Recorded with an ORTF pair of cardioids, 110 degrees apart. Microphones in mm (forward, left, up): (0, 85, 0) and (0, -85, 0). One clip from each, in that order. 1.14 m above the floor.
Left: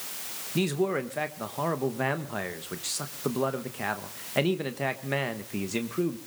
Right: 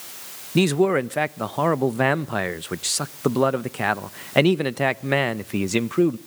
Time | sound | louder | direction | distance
0.6 | a man speaking | right 8 dB | 45° right | 1.0 m